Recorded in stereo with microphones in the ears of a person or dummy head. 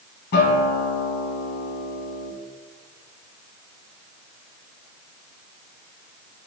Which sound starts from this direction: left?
A guitar, at 0.3 s.